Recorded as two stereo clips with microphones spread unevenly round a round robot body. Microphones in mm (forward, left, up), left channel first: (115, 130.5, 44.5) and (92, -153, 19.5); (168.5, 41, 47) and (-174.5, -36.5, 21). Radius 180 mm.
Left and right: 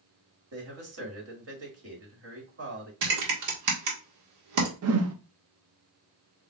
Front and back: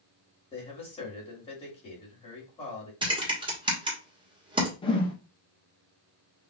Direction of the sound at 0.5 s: 60° right.